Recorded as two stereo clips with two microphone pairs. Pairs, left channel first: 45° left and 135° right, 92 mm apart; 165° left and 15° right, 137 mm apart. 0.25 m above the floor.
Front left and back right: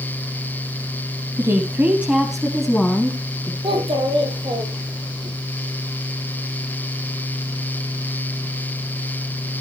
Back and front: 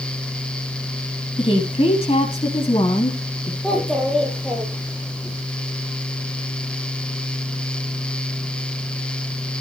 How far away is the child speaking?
About 6.5 m.